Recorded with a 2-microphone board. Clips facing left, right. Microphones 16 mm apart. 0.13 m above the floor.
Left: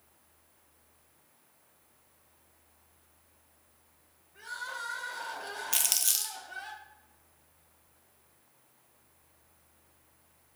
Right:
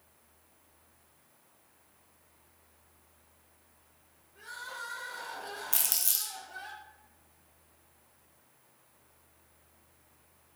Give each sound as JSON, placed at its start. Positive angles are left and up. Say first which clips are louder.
{"t": 4.3, "sound": "crying", "louder": "left 3 dB", "side_deg": 25, "distance_m": 0.7}
{"t": 5.7, "sound": "crumpling", "louder": "left 4 dB", "side_deg": 35, "distance_m": 0.6}